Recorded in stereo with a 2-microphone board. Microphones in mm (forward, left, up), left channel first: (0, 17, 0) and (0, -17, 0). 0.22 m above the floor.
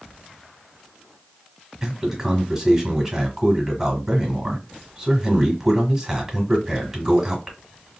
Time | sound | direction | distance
1.8 | a man speaking | 10° right (ahead or behind) | 1.2 m